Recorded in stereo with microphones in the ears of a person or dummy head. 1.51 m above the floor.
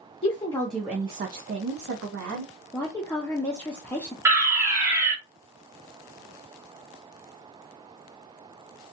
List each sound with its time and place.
0.2 s a woman speaking: 30° left (ahead or behind), 0.6 m; by 2.5 s 80° right, 1.0 m
2.7 s a woman speaking: 5° left (ahead or behind), 0.5 m
4.2 s a fire alarm: 10° right (ahead or behind), 0.8 m